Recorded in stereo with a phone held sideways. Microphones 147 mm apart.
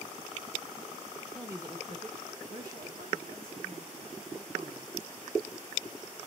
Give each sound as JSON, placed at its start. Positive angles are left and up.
{"t": 1.3, "sound": "a man speaking", "side_deg": -5, "distance_m": 1.0}